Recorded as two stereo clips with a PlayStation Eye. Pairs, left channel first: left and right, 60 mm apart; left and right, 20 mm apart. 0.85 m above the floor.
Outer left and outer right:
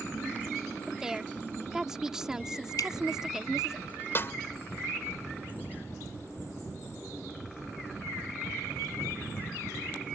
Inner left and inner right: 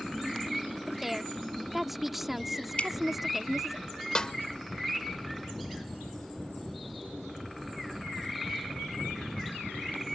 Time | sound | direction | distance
0.9 | a woman speaking | 10° right (ahead or behind) | ?
2.8 | dripping | 75° left (ahead or behind) | ?
4.2 | a snare drum | 40° left (ahead or behind) | ?